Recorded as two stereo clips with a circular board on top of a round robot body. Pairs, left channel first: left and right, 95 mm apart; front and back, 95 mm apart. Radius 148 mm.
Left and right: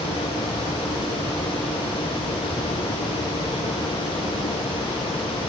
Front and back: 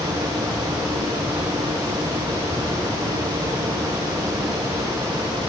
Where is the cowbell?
I don't hear a cowbell.